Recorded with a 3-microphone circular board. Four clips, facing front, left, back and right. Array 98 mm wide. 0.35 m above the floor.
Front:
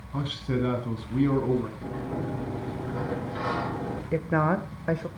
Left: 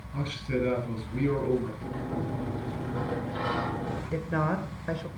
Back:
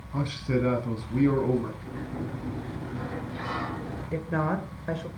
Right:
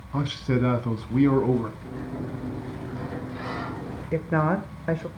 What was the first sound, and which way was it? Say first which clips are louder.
A man speaking: right 5 dB, back 1 dB; 85° right.